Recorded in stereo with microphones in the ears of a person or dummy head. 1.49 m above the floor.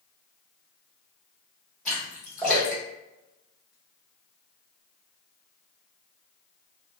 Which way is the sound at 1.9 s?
10° left (ahead or behind).